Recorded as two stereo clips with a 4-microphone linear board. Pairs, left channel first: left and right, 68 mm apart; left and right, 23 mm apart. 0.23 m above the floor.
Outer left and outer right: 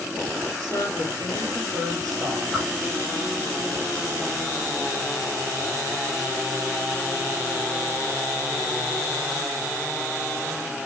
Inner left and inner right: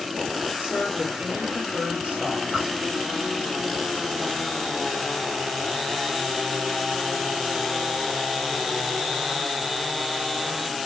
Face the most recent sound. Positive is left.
turn(degrees=0)  # may be behind; listen again after turning